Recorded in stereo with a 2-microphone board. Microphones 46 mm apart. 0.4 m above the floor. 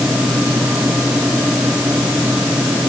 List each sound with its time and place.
Only background noise.